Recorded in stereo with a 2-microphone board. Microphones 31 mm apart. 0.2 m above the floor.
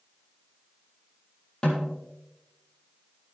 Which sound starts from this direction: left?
A snare drum, at 1.6 s.